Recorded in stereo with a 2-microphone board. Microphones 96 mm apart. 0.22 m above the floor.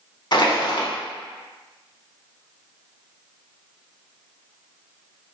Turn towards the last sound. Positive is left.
turn(degrees=55)  # may be behind; listen again after turning